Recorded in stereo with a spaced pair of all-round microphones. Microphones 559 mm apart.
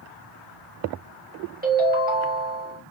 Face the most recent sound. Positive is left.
turn(degrees=-15)  # may be behind; listen again after turning